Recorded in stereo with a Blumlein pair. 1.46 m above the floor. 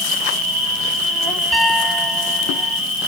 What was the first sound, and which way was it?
An insect, 10° right.